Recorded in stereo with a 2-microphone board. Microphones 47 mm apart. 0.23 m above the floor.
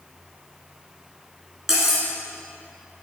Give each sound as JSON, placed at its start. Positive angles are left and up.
{"t": 1.7, "sound": "cutlery clinking", "side_deg": -10, "distance_m": 1.6}